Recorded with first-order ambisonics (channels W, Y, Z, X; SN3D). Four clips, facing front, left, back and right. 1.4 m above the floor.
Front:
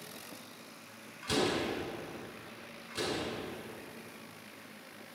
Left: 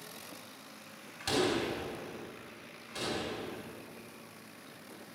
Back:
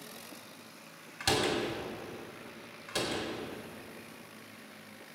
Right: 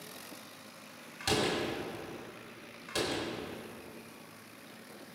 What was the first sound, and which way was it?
A door slam, 170° right.